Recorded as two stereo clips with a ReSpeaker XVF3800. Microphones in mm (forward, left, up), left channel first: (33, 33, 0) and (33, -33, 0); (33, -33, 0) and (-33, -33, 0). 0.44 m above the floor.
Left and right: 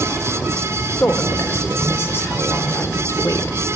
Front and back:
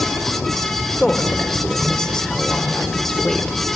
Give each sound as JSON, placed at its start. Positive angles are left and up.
{"t": 1.0, "sound": "a woman speaking", "azimuth_deg": 75, "distance_m": 1.3}